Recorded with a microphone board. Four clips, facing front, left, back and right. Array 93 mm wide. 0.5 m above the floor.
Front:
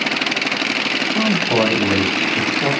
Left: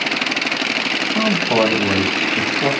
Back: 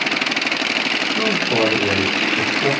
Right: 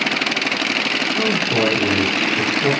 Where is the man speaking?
60° left, 3.5 m.